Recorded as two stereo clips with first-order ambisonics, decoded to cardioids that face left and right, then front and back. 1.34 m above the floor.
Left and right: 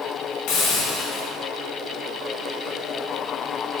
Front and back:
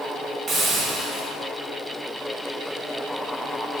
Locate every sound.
0.5 s a hiss: 120° left, 1.5 m